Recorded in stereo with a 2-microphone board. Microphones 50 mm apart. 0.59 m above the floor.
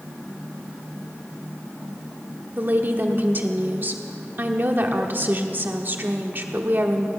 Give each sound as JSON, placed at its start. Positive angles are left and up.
{"t": 2.6, "sound": "a woman speaking", "side_deg": -45, "distance_m": 1.2}